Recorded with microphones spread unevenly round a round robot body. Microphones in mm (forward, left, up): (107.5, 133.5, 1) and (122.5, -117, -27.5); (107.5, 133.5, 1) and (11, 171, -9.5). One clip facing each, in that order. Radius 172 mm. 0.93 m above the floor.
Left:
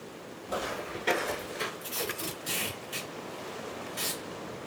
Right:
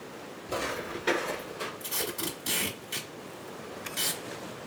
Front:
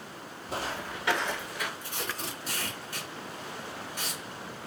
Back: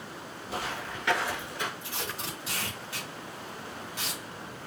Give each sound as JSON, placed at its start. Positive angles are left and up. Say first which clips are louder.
{"t": 0.5, "sound": "footsteps", "louder": "right 1 dB, front 1 dB", "azimuth_deg": -40, "distance_m": 1.2}
{"t": 1.8, "sound": "tape being pulled", "louder": "right 1 dB, front 1 dB", "azimuth_deg": -100, "distance_m": 1.6}